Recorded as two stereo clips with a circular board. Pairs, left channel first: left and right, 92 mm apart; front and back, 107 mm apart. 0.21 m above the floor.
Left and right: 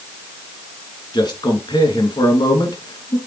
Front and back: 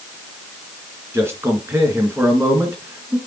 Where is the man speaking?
115° left, 2.5 m.